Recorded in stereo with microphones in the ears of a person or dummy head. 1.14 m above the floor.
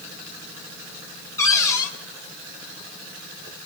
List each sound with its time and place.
1.4 s a cupboard door: 20° left (ahead or behind), 1.8 m